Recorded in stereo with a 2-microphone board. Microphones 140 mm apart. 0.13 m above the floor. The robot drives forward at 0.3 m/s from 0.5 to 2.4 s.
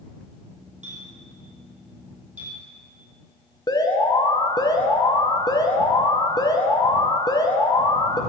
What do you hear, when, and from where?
0.8 s a clink: 60° right (ahead or behind), 3.5 m; by 2.6 s 65° right (ahead or behind), 3.5 m
3.7 s an alarm: 30° left (ahead or behind), 1.0 m